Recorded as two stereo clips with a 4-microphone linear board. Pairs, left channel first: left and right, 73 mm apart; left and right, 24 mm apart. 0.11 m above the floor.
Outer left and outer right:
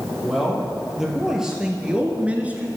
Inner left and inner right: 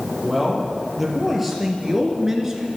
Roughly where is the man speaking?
Centre.